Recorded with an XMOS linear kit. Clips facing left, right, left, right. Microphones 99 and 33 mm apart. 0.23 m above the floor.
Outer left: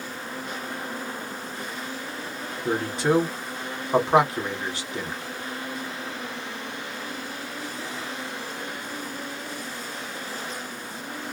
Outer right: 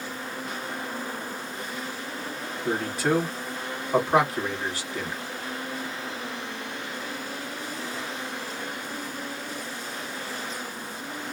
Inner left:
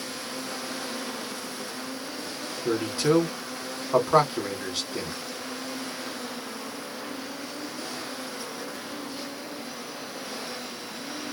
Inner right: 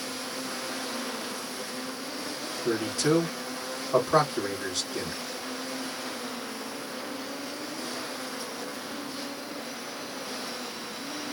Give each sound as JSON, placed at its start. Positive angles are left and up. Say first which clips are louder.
{"t": 2.6, "sound": "a man speaking", "louder": "outer left 2 dB, inner left 2 dB", "side_deg": 20, "distance_m": 1.8}